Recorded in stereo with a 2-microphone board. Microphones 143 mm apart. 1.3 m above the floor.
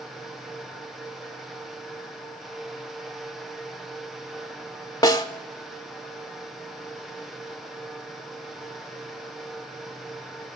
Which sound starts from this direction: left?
A snare drum, at 5.0 s.